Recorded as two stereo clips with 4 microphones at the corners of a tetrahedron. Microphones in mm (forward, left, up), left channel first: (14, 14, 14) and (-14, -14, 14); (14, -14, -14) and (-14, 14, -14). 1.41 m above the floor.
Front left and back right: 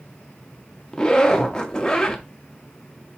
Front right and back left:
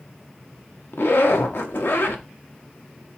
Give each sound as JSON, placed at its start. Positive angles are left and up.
{"t": 0.9, "sound": "a zipper", "azimuth_deg": -25, "distance_m": 0.6}